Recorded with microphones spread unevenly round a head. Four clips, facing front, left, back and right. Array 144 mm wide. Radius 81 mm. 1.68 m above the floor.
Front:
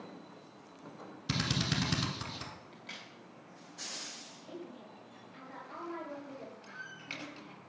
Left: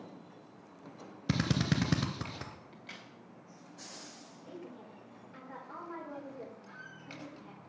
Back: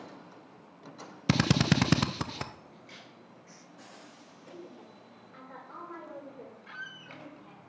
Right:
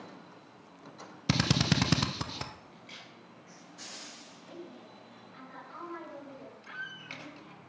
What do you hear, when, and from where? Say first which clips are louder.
1.3 s a drill: right 2 dB, back 9 dB; 170° right, 0.7 m
2.7 s a crack: even, front 1 dB; 75° left, 2.5 m
4.5 s a woman speaking: even, front 1 dB; 115° left, 5.5 m
6.7 s a squeak: right 5 dB, back 2 dB; 110° right, 1.2 m